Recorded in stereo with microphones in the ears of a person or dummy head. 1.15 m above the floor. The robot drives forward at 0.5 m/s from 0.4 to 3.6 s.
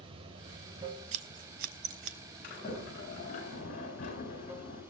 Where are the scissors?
45° right (ahead or behind), 0.6 m.